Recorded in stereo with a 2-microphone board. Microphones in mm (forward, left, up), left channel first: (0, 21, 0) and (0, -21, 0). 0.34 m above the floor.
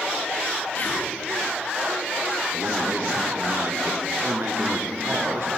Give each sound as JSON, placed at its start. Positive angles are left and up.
{"t": 0.8, "sound": "whispering", "side_deg": 45, "distance_m": 3.5}
{"t": 2.5, "sound": "a man speaking", "side_deg": -60, "distance_m": 5.0}